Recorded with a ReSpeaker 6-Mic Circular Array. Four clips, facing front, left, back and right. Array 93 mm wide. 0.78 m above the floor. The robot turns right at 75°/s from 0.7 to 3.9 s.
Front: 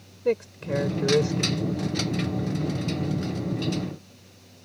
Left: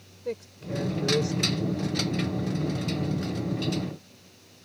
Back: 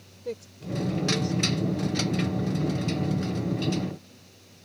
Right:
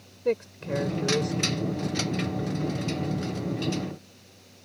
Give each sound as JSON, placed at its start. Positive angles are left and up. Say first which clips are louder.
{"t": 0.2, "sound": "a man speaking", "louder": "right 7 dB, front 9 dB", "azimuth_deg": -35}